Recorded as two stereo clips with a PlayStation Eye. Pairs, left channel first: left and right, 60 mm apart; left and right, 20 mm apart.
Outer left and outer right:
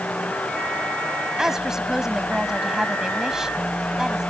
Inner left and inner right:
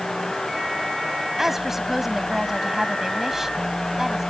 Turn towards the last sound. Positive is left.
turn(degrees=-10)  # may be behind; listen again after turning